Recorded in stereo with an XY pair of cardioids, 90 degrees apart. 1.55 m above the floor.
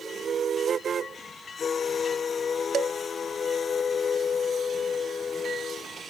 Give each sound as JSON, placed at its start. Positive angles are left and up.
{"t": 2.7, "sound": "dishes clattering", "azimuth_deg": -60}